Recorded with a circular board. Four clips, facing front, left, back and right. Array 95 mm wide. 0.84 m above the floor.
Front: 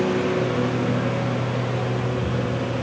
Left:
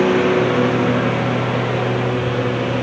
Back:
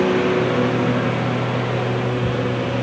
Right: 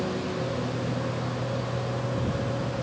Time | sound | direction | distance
0.0 | a lawn mower | 110° left | ?